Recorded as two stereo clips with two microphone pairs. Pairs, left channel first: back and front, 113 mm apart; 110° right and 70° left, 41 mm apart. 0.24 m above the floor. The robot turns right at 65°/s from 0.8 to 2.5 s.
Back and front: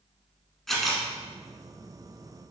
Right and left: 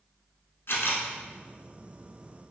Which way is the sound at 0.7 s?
90° right.